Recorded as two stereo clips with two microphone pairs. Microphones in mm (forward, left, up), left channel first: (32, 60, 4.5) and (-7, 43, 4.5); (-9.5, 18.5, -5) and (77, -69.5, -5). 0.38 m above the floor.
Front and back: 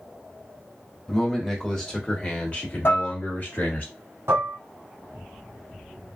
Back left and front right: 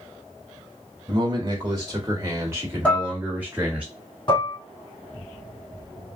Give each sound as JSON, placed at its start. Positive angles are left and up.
{"t": 1.1, "sound": "a man speaking", "azimuth_deg": -55, "distance_m": 1.5}
{"t": 2.9, "sound": "dishes clattering", "azimuth_deg": 50, "distance_m": 1.7}
{"t": 4.3, "sound": "dishes clattering", "azimuth_deg": -175, "distance_m": 1.9}